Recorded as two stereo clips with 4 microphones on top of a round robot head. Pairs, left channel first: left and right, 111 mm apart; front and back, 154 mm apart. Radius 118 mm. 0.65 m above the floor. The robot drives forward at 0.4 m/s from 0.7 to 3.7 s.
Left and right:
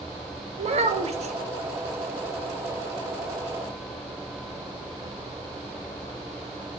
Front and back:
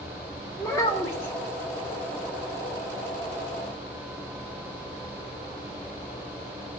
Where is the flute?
I don't hear a flute.